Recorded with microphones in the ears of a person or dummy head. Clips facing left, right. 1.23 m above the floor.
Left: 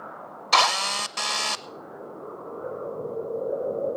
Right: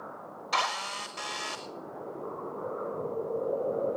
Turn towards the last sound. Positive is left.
turn(degrees=75)  # may be behind; listen again after turning